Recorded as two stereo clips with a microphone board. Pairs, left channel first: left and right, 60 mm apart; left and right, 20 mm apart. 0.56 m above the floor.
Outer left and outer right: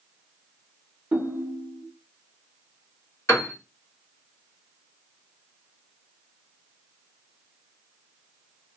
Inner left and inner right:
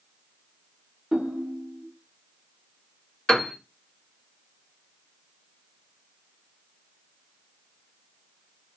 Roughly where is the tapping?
No tapping in this recording.